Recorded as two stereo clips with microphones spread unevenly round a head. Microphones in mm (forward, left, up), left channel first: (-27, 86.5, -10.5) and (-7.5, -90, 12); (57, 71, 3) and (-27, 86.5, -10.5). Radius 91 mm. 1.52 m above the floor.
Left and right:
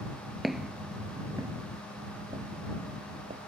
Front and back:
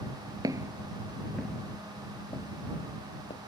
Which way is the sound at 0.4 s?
160° right.